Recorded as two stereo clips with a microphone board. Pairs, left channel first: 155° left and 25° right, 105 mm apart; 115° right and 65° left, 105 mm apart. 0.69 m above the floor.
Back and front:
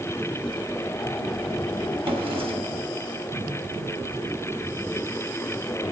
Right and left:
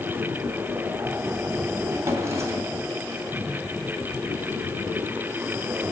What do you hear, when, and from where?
2.0 s a drawer: 5° left, 2 m